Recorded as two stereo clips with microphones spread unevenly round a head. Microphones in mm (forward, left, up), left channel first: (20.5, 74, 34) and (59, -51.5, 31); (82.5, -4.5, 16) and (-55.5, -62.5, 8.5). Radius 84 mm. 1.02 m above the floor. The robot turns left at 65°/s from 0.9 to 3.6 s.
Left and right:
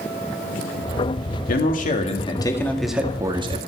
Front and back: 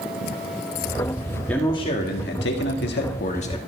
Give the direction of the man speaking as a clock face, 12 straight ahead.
8 o'clock.